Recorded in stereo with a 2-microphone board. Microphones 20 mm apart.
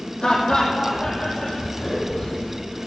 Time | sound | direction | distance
0.2 | laughter | 35° left (ahead or behind) | 6 m